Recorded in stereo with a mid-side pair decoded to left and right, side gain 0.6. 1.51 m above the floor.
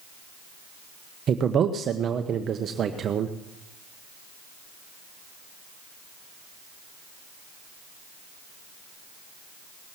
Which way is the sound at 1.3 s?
40° right.